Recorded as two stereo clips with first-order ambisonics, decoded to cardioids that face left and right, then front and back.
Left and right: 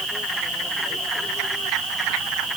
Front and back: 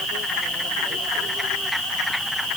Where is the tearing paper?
I don't hear tearing paper.